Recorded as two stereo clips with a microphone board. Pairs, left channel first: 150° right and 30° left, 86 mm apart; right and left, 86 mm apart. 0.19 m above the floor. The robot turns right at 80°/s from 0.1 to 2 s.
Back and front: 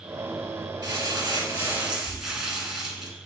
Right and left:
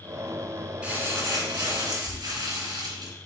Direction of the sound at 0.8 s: 15° left.